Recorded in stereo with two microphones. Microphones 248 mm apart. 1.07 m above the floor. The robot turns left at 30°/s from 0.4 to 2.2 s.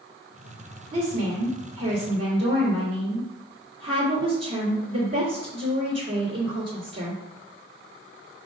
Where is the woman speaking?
70° right, 3 m; by 7.2 s 105° right, 3 m.